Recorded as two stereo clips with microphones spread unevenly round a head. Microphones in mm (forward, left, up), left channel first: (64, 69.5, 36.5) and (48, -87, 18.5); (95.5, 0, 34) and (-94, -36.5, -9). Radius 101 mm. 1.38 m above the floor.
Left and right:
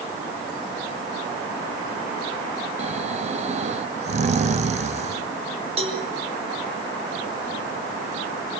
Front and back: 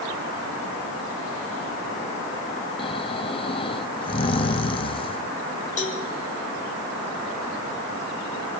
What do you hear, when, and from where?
2.8 s snoring: 50° right, 1.4 m
5.8 s a cowbell: 45° right, 6.5 m